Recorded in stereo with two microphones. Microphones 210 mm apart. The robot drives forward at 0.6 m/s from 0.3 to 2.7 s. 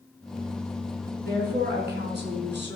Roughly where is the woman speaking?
Right.